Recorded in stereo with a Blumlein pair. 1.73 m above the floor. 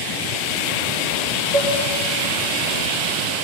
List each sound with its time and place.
1.5 s dishes clattering: 40° left, 4 m